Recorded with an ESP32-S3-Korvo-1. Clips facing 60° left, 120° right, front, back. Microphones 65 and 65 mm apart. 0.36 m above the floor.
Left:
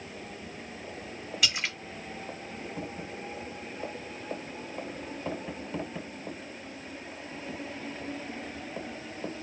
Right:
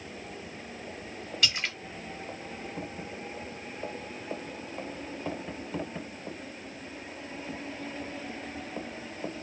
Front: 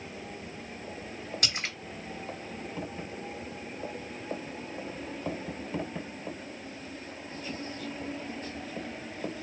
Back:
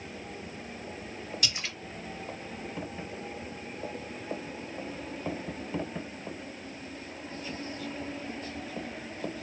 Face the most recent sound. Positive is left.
turn(degrees=-25)